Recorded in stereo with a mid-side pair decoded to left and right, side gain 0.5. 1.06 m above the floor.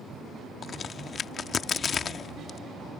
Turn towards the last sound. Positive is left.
turn(degrees=45)